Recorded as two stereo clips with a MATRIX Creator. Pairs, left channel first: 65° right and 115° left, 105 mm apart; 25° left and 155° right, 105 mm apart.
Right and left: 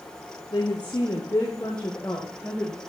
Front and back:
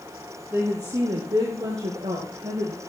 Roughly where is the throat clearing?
I don't hear throat clearing.